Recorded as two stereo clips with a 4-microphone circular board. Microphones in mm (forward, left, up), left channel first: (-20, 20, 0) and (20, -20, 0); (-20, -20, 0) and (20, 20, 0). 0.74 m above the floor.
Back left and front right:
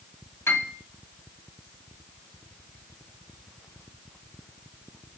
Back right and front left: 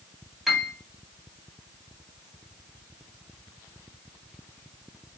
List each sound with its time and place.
0.5 s a piano: 135° left, 0.8 m